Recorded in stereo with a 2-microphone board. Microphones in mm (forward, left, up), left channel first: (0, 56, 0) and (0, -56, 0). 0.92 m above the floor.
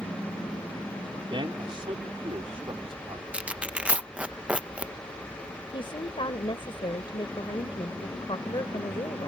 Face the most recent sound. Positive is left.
turn(degrees=50)  # may be behind; listen again after turning